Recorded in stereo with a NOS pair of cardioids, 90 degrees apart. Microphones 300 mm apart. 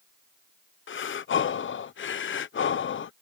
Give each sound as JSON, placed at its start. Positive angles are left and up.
{"t": 0.9, "sound": "breathing", "azimuth_deg": 40}